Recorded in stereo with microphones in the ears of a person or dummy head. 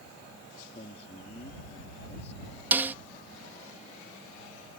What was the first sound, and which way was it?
A man speaking, 35° left (ahead or behind).